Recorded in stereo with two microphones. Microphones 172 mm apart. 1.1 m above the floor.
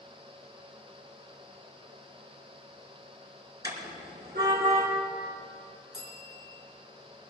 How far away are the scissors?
No scissors in this recording.